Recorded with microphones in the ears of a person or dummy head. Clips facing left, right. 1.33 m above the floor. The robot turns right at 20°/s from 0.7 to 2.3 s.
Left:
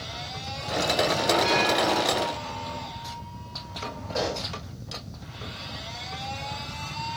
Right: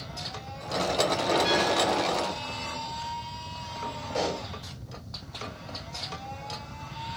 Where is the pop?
15° right (ahead or behind), 3.5 m.